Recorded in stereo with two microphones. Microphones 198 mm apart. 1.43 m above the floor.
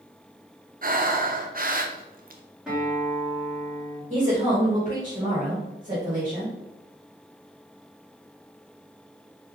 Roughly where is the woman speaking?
Right.